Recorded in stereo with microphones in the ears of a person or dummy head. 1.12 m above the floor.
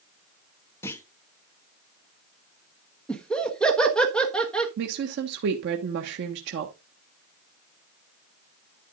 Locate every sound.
0.8 s a clunk: 15° left (ahead or behind), 0.9 m
3.1 s laughter: centre (ahead or behind), 1.3 m
4.8 s a woman speaking: 60° right (ahead or behind), 1.3 m